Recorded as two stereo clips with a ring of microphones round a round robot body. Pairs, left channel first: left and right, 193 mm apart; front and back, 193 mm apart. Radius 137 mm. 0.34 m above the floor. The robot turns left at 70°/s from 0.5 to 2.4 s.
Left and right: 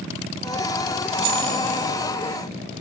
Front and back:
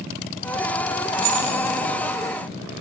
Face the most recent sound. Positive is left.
turn(degrees=150)